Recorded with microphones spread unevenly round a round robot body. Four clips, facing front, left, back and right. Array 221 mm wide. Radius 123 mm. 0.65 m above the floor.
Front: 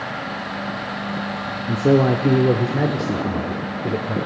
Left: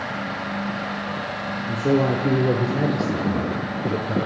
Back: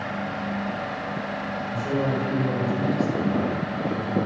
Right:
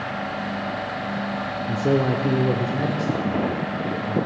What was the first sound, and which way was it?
A man speaking, 10° right.